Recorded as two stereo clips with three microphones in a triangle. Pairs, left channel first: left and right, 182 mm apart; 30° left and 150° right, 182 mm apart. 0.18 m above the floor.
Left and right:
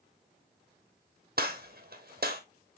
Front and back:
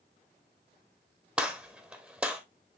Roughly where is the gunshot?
Ahead right.